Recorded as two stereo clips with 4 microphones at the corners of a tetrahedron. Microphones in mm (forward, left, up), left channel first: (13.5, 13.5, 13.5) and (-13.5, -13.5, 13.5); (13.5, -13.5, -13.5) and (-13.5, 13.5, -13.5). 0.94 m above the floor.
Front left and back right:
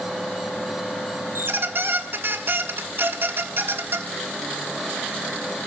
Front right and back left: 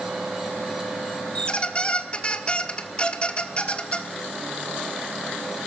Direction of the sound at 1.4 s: 105° right.